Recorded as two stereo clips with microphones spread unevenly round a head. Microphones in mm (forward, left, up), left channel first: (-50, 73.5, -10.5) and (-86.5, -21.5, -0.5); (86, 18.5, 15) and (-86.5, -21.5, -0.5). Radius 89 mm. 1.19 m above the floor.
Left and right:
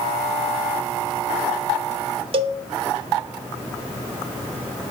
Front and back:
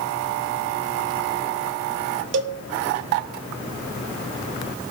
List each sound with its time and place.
2.3 s a cowbell: 145° right, 0.6 m